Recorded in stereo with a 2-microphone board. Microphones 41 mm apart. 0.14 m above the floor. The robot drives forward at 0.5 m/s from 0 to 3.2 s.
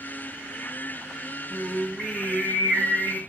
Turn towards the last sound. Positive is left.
turn(degrees=10)  # may be behind; listen again after turning